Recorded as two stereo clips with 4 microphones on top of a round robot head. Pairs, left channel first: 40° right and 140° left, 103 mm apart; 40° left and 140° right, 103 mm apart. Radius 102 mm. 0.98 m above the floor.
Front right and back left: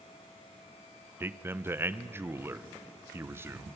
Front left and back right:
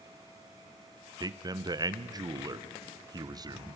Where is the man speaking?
165° right, 0.8 m.